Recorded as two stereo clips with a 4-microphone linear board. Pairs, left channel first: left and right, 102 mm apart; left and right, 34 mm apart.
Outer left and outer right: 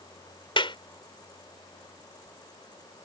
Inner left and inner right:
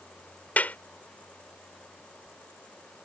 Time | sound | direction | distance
0.6 | a clap | 55° left (ahead or behind) | ?